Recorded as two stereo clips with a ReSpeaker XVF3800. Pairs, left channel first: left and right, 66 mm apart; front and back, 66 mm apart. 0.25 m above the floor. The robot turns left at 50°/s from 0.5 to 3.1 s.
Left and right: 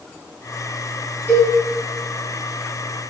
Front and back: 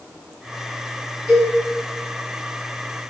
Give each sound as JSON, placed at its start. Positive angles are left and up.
{"t": 1.3, "sound": "a cowbell", "azimuth_deg": 95, "distance_m": 1.5}